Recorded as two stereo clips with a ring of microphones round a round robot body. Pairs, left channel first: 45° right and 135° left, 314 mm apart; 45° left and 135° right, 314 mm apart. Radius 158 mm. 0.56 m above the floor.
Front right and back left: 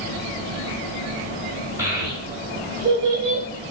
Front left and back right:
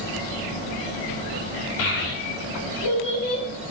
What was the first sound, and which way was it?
A child speaking, 55° left.